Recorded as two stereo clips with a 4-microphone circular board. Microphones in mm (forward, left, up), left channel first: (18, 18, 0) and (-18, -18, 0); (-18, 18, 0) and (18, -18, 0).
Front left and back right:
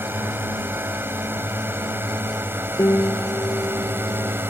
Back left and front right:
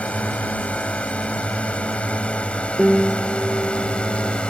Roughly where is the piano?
Ahead left.